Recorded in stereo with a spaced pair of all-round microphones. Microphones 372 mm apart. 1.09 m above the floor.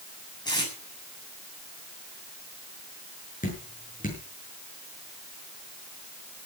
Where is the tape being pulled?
10° left (ahead or behind), 7 m.